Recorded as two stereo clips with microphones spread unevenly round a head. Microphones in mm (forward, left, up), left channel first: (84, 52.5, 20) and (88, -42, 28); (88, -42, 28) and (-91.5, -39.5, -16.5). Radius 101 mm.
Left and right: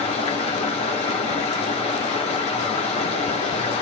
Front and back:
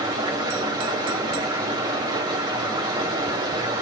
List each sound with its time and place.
0.0 s running water: 105° left, 1.8 m